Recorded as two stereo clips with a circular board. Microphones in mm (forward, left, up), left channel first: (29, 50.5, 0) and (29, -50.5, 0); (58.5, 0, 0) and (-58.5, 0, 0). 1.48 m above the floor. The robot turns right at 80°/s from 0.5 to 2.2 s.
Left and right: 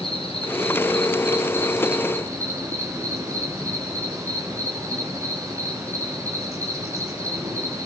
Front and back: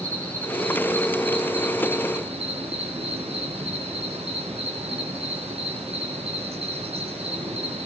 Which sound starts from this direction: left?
An insect, at 0.0 s.